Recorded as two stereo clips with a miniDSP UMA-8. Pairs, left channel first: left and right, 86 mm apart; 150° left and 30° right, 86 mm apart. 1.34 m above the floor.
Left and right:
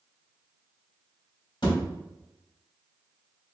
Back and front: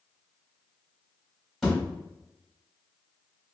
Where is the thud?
65° left, 2.0 m.